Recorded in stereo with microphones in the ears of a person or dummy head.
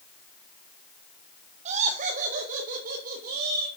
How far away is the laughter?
About 1.0 m.